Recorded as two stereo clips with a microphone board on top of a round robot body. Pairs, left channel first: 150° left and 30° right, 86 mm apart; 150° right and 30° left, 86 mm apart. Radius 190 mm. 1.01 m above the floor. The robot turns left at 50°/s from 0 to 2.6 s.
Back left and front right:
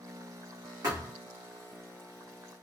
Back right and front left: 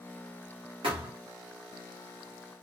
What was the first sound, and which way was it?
A thud, 25° left.